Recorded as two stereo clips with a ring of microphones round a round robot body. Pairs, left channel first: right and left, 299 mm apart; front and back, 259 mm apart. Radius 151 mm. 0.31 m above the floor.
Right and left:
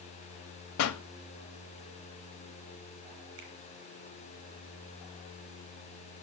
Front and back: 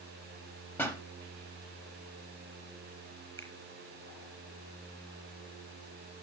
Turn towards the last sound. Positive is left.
turn(degrees=80)